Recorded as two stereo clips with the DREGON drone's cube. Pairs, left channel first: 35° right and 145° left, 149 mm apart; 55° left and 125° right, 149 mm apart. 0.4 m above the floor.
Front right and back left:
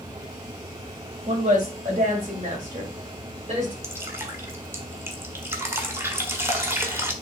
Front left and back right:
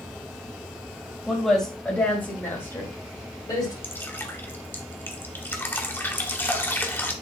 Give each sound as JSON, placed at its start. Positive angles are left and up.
{"t": 1.3, "sound": "a woman speaking", "azimuth_deg": 150, "distance_m": 2.0}
{"t": 3.8, "sound": "dripping", "azimuth_deg": 105, "distance_m": 1.4}